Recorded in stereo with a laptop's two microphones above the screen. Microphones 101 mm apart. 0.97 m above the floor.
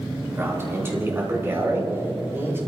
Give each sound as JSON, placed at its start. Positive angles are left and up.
{"t": 0.4, "sound": "a man speaking", "side_deg": -25, "distance_m": 4.5}